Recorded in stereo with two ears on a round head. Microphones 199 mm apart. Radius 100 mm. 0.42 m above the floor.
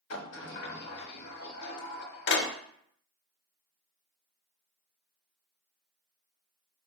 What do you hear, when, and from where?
0.1 s a sliding door: 50° left (ahead or behind), 0.8 m